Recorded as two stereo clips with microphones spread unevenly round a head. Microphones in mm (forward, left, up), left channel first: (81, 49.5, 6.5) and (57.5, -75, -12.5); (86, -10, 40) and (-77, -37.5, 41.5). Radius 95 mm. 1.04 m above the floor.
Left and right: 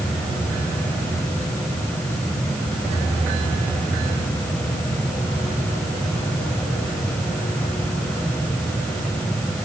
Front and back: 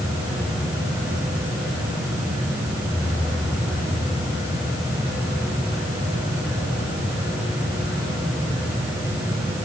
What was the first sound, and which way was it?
Only background noise.